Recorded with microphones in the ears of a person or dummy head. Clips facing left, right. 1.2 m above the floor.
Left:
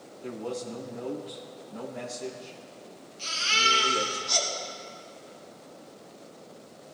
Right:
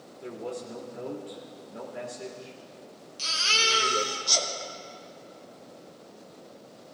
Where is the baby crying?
65° right (ahead or behind), 1.9 m.